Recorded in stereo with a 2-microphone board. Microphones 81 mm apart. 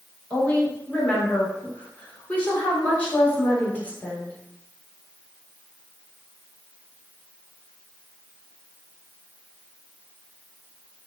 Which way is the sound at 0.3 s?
20° left (ahead or behind).